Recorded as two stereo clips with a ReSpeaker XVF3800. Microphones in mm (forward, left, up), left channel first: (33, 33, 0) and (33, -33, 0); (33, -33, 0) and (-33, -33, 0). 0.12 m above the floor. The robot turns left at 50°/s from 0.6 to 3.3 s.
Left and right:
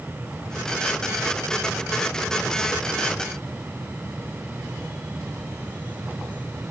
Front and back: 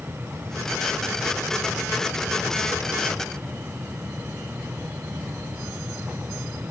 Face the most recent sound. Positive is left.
No sound to turn to.